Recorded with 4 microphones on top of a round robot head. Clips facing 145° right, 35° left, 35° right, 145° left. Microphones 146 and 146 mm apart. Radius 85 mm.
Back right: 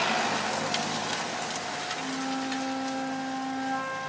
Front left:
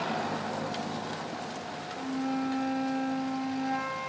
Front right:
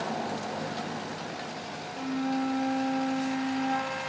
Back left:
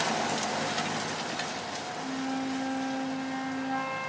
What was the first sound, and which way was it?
A flute, 40° right.